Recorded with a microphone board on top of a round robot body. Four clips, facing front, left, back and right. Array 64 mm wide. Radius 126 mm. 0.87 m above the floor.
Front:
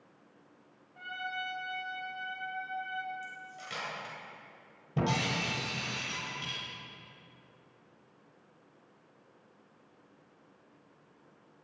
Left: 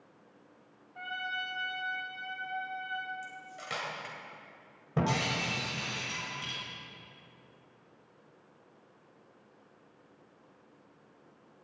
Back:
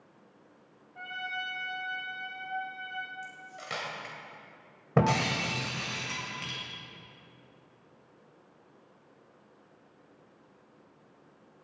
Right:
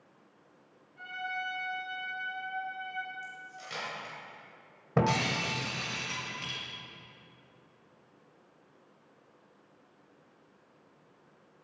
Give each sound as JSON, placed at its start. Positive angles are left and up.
{"t": 0.9, "sound": "a trumpet", "azimuth_deg": 125, "distance_m": 5.0}
{"t": 3.2, "sound": "cutlery clinking", "azimuth_deg": 145, "distance_m": 2.5}
{"t": 5.0, "sound": "breaking glass", "azimuth_deg": -160, "distance_m": 2.5}